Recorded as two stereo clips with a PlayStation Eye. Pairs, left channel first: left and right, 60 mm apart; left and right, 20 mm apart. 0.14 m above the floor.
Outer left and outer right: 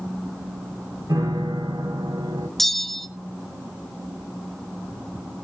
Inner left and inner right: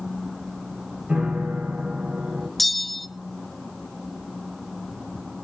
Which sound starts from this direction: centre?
A bell, at 2.6 s.